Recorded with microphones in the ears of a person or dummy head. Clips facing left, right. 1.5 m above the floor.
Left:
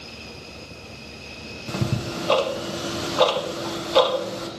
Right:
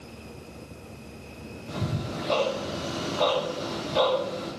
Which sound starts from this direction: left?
Ticking, at 1.7 s.